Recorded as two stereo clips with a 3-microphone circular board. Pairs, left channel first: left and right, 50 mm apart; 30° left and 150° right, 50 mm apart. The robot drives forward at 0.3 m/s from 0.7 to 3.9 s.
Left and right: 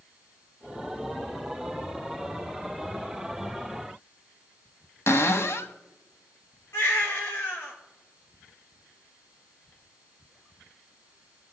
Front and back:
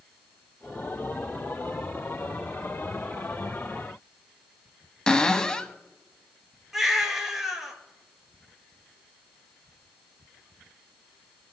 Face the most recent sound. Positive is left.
turn(degrees=125)